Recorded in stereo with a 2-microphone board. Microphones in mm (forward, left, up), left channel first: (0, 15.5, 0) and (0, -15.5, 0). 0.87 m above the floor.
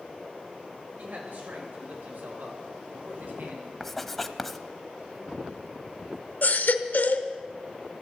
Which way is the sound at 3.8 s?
5° left (ahead or behind).